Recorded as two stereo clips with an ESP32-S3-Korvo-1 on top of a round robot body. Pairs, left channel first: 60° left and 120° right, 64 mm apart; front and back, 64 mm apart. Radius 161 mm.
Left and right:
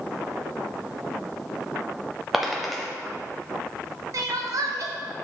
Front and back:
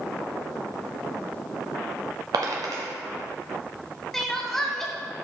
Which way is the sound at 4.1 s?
85° right.